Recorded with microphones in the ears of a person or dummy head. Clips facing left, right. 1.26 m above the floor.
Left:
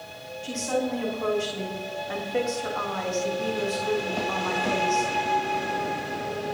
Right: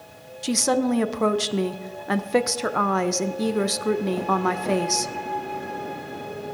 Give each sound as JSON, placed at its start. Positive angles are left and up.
{"t": 0.4, "sound": "a woman speaking", "side_deg": -70, "distance_m": 0.6}